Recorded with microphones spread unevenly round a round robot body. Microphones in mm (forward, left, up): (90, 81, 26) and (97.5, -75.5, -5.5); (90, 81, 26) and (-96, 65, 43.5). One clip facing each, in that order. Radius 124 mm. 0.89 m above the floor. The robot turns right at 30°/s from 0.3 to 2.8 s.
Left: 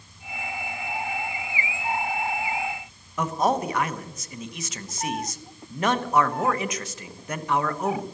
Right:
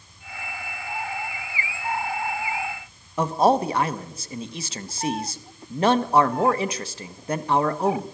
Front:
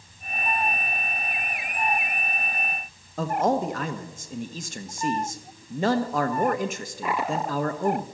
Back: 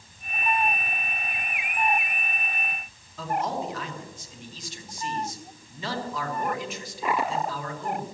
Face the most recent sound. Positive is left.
turn(degrees=-35)